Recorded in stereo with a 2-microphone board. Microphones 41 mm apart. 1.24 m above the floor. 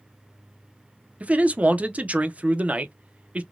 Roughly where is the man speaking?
Right.